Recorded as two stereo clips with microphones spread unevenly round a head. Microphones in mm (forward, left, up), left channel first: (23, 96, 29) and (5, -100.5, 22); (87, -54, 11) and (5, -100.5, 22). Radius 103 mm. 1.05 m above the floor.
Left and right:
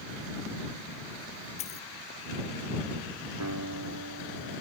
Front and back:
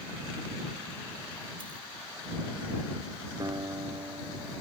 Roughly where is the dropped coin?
Behind left.